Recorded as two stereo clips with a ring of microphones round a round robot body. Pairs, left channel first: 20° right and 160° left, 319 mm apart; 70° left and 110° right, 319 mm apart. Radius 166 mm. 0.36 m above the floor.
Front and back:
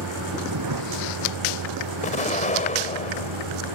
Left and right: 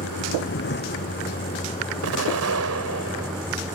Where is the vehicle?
120° left; by 3.8 s 165° left.